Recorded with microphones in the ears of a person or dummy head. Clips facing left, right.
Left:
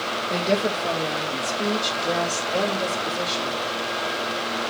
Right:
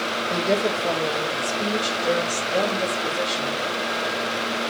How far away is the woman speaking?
About 2.5 m.